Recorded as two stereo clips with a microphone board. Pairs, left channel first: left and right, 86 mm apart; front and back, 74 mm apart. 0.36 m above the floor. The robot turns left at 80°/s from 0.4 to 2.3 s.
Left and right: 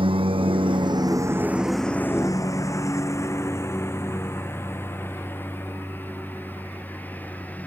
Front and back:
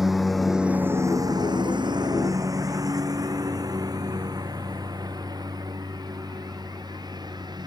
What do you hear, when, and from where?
0.0 s a lawn mower: 95° right; by 7.7 s 160° left